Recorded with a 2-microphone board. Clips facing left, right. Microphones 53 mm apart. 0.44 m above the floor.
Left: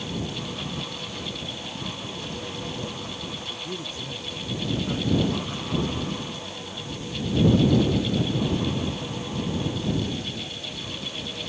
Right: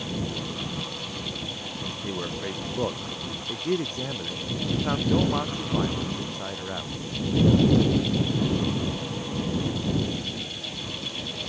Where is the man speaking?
50° right (ahead or behind).